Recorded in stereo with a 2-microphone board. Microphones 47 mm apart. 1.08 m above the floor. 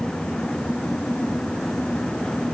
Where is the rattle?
No rattle in this recording.